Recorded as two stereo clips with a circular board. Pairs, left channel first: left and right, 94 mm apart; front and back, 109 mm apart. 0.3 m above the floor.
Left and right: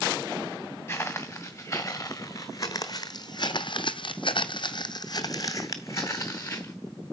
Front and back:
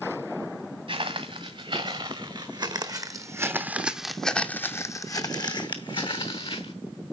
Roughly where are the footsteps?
Behind left.